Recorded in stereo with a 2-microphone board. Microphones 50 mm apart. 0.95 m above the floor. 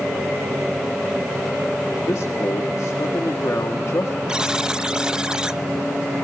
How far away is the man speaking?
About 1.9 m.